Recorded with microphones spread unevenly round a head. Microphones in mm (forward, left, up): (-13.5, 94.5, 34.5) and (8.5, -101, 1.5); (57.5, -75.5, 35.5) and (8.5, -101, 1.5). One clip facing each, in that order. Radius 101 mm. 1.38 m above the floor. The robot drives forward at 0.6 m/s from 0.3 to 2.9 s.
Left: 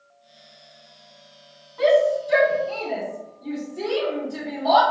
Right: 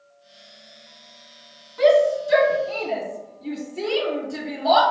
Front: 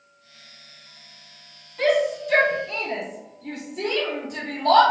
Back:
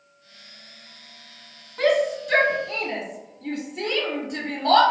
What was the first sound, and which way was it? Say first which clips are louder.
A shout: right 1 dB, even; 140° right.